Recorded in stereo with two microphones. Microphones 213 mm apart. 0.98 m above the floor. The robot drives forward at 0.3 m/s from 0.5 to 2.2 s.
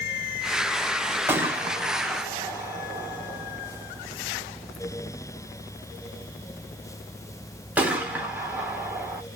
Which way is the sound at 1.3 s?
10° right (ahead or behind).